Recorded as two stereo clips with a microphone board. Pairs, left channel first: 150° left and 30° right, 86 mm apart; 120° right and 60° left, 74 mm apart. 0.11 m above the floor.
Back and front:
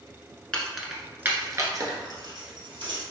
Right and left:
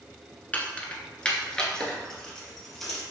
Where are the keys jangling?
150° right, 0.9 m; by 3.0 s 35° right, 1.9 m.